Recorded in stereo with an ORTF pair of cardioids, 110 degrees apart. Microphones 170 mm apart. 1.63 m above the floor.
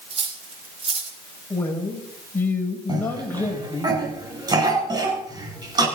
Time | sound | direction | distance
0.1 | cutlery clinking | 35° right | 3 m
1.5 | a man speaking | 10° left | 7 m
2.9 | a cough | 25° right | 10 m